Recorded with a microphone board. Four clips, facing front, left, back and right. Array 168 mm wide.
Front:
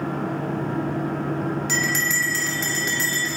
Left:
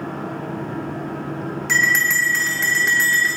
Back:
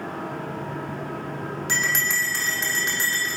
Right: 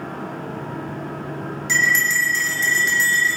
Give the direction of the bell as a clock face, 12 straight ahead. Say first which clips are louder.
Even, front 2 dB; 8 o'clock.